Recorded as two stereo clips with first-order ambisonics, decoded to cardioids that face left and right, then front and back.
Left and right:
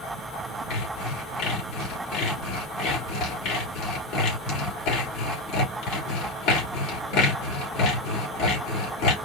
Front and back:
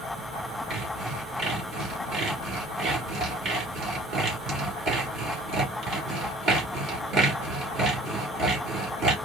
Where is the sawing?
120° left, 3 m.